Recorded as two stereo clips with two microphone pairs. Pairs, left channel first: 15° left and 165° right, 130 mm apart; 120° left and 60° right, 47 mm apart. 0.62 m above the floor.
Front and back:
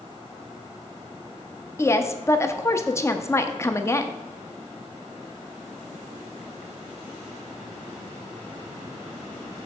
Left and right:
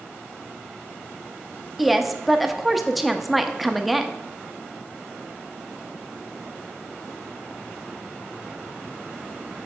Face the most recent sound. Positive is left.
turn(degrees=15)